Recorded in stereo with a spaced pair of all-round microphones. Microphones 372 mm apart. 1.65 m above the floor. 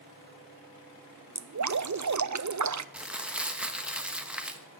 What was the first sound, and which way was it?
Dripping, 50° right (ahead or behind).